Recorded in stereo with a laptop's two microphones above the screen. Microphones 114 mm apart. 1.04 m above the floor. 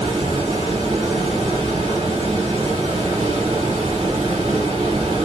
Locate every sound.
0.0 s running water: 45° right (ahead or behind), 1.9 m